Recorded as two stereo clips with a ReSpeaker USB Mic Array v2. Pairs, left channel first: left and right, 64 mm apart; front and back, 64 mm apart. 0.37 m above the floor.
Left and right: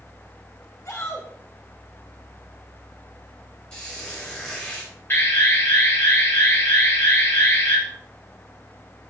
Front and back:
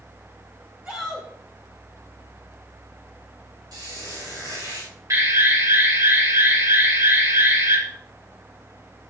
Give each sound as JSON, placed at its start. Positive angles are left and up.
{"t": 0.8, "sound": "a shout", "azimuth_deg": 120, "distance_m": 2.5}
{"t": 3.7, "sound": "a squeak", "azimuth_deg": 165, "distance_m": 5.0}
{"t": 5.1, "sound": "an alarm", "azimuth_deg": 145, "distance_m": 5.0}